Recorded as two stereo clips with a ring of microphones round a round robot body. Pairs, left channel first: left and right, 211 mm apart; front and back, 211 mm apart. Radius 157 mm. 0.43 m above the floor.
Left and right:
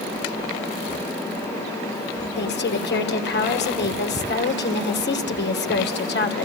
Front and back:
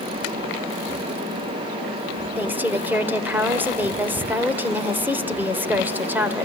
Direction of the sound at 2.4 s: 100° left.